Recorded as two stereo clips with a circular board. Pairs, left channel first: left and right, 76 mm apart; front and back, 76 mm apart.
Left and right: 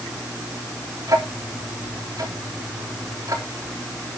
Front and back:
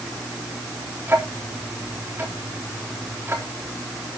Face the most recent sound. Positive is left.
turn(degrees=-120)